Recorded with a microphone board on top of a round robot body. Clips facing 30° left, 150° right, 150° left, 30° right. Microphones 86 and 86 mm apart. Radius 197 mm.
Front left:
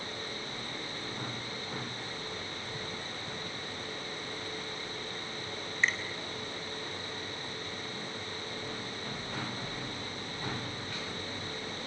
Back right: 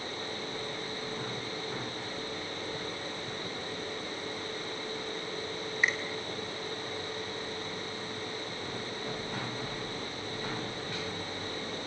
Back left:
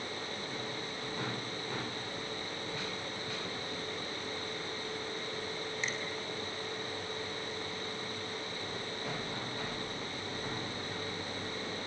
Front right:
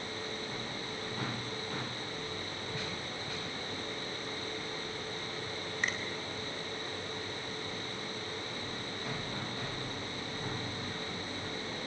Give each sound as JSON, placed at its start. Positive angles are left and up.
{"t": 5.8, "sound": "a finger snap", "azimuth_deg": -70, "distance_m": 3.5}